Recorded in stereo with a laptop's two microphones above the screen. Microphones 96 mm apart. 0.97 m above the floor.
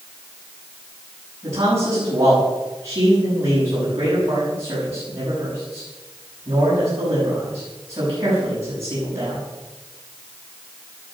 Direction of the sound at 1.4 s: 30° right (ahead or behind).